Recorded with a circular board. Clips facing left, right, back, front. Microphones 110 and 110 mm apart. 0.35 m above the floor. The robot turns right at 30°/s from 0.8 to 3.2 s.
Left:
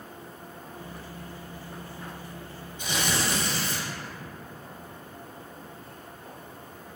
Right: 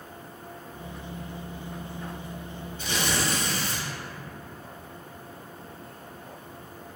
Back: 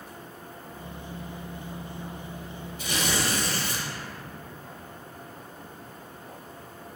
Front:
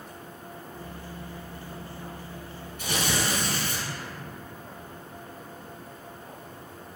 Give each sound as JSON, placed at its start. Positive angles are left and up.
{"t": 2.8, "sound": "tearing paper", "azimuth_deg": 20, "distance_m": 0.8}